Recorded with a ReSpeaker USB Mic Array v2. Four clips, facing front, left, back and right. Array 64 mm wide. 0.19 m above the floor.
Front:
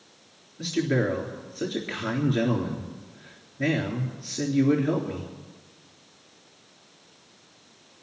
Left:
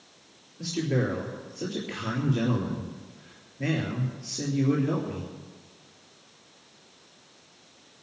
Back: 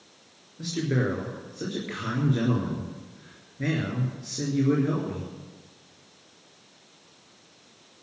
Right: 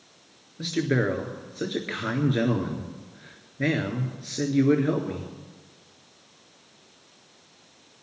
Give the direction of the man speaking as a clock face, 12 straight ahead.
3 o'clock.